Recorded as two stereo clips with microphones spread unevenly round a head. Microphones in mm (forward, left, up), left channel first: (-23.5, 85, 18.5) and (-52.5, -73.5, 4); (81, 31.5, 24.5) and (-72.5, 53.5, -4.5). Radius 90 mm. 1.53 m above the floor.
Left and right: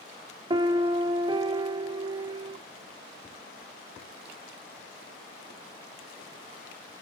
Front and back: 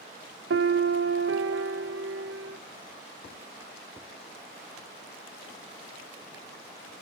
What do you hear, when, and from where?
0.5 s a piano: 165° right, 0.9 m